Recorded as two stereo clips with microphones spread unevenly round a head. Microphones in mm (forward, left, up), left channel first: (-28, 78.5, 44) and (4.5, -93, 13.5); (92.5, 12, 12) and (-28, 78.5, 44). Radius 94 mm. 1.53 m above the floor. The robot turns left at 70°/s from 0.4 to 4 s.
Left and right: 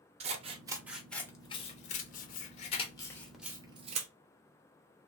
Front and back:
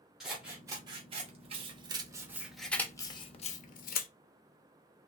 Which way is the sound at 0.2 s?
135° right.